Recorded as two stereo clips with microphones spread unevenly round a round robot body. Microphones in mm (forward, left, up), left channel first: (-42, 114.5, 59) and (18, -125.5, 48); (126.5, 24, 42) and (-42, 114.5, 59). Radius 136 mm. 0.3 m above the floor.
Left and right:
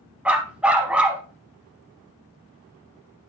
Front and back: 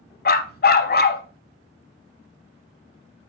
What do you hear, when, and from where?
0.2 s a dog barking: 10° left, 0.8 m